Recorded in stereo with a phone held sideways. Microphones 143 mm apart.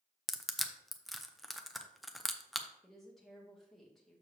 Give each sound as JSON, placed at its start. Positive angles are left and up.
{"t": 0.3, "sound": "crushing", "side_deg": 0, "distance_m": 0.6}
{"t": 2.8, "sound": "a woman speaking", "side_deg": 0, "distance_m": 2.0}